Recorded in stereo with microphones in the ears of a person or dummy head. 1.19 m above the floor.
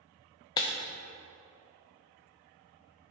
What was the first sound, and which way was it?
Breaking glass, 25° left (ahead or behind).